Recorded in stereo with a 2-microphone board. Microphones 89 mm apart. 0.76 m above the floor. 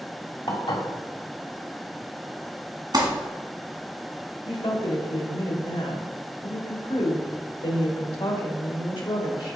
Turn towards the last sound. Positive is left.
turn(degrees=65)  # may be behind; listen again after turning